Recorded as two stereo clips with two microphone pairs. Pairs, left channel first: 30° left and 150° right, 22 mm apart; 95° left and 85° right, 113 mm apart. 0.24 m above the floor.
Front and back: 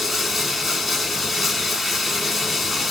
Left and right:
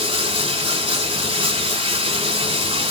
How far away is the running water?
About 0.7 m.